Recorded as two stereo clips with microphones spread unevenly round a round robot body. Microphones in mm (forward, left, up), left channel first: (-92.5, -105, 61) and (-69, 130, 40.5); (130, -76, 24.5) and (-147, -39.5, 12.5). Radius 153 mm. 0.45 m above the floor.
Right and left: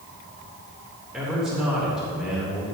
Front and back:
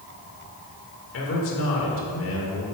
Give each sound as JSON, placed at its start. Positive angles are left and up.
{"t": 1.1, "sound": "a man speaking", "azimuth_deg": 5, "distance_m": 1.9}